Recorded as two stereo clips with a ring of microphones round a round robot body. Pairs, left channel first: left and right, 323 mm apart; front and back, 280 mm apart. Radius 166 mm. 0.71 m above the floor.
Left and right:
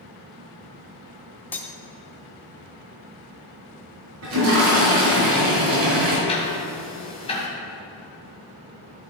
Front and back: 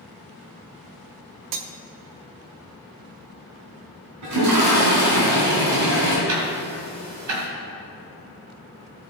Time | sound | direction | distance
1.5 | cutlery clinking | 175° left | 0.8 m
4.2 | a toilet flushing | 140° right | 2.5 m
6.3 | ticking | 165° left | 2.5 m